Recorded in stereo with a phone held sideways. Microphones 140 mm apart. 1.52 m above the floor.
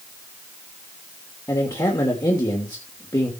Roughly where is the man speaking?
Left.